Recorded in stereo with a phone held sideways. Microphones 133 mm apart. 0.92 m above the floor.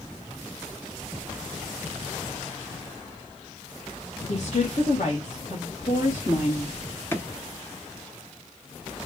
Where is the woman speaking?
55° left (ahead or behind), 1.3 m; by 6.7 s 65° left (ahead or behind), 2.5 m.